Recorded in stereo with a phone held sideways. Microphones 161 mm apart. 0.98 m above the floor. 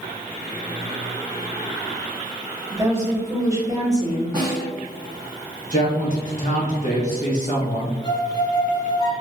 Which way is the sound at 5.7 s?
50° left (ahead or behind).